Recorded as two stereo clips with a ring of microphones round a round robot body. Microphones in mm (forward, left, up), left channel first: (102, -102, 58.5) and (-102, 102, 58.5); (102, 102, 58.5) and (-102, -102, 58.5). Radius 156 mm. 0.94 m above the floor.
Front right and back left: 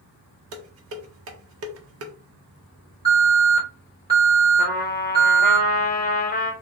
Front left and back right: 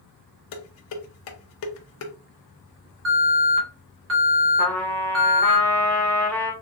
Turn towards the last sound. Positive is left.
turn(degrees=-35)